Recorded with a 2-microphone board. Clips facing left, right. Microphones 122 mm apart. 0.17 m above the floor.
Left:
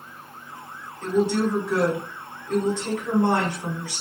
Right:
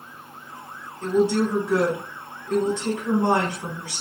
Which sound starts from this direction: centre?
A woman speaking, at 1.0 s.